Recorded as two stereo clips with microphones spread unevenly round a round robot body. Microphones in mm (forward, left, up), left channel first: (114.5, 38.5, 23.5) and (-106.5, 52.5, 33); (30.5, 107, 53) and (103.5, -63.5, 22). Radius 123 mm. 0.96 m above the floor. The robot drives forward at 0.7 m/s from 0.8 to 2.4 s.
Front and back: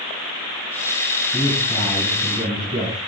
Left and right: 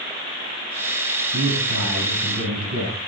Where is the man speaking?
75° right, 9.5 m; by 3.0 s 80° right, 9 m.